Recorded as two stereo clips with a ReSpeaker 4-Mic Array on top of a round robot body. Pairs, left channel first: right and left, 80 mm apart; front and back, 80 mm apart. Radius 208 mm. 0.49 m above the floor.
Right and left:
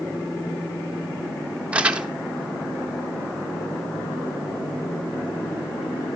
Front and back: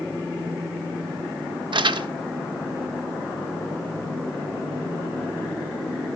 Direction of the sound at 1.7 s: 165° left.